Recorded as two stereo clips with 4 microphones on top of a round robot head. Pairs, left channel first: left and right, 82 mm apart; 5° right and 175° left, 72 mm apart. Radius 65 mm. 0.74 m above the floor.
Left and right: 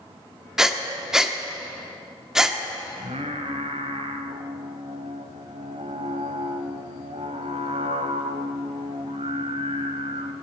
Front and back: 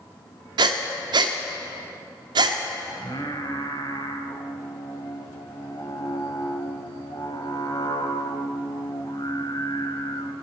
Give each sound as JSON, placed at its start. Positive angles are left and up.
{"t": 0.6, "sound": "breathing", "azimuth_deg": -175, "distance_m": 1.1}
{"t": 2.9, "sound": "singing", "azimuth_deg": -60, "distance_m": 0.9}